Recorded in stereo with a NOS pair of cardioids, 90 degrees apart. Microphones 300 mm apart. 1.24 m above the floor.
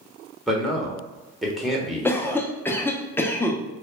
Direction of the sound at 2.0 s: 10° left.